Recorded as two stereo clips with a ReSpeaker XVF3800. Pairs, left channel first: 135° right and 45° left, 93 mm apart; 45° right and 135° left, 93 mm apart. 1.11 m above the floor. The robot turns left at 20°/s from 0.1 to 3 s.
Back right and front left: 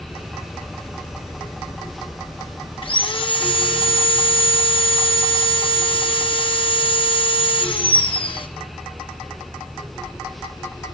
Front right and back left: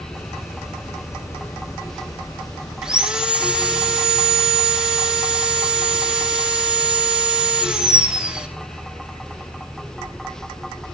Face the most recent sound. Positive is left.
turn(degrees=-145)